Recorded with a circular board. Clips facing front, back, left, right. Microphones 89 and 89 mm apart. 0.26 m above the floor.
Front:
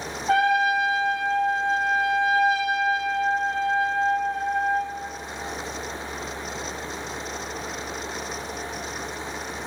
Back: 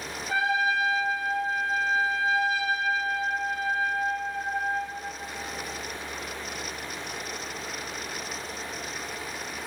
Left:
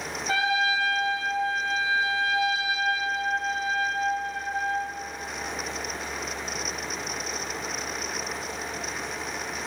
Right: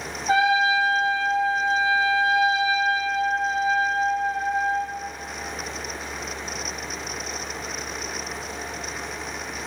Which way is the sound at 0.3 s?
25° right.